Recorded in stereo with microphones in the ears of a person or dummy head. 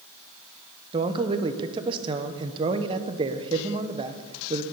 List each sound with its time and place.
0.9 s a man speaking: 25° right (ahead or behind), 0.9 m